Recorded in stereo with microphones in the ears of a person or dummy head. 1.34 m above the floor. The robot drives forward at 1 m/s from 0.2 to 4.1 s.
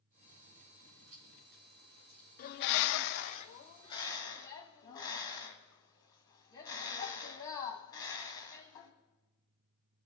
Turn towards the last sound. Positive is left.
turn(degrees=20)  # may be behind; listen again after turning